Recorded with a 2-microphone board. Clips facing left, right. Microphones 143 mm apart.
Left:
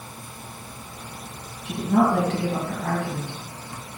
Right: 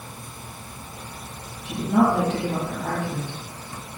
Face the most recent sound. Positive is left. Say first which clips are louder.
# even
turn(degrees=70)  # may be behind; listen again after turning